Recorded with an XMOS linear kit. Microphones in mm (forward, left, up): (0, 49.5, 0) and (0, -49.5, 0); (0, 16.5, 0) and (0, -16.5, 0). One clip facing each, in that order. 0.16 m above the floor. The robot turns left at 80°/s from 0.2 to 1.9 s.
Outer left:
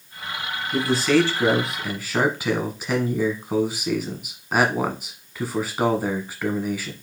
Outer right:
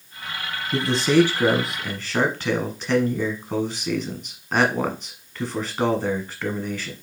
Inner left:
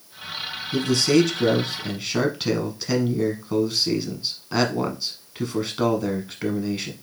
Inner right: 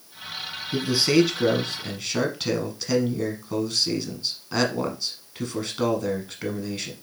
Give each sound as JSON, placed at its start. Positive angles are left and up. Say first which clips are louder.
{"t": 0.7, "sound": "a man speaking", "louder": "outer right 1 dB, inner left 1 dB", "side_deg": -25, "distance_m": 1.1}